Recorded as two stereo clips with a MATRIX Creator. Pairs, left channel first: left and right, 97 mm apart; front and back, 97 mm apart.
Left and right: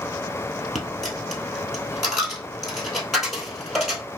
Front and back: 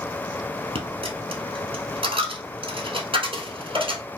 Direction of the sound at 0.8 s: Straight behind.